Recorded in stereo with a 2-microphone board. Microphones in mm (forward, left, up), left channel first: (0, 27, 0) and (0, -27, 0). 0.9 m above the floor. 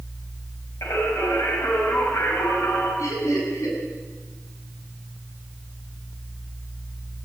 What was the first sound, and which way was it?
Singing, 60° left (ahead or behind).